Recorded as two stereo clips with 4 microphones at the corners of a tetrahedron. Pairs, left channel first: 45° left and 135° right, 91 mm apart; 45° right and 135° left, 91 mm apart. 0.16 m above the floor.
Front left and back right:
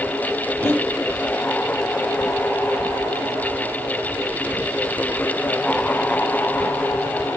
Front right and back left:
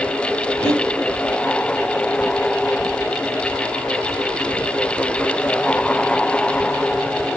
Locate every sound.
0.6 s breathing: 55° right, 6 m